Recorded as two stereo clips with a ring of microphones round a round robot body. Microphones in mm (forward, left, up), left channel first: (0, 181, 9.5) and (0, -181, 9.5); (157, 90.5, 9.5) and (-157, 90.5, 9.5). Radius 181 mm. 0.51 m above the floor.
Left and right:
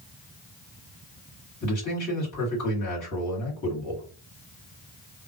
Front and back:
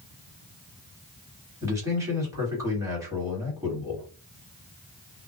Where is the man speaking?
105° left, 1.7 m.